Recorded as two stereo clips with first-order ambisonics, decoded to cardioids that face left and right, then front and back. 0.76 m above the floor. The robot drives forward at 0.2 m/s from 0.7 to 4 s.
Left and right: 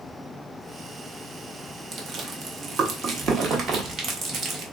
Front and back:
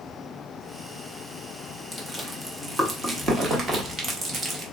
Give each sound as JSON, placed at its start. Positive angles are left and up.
{"t": 1.9, "sound": "chewing", "azimuth_deg": -95, "distance_m": 0.9}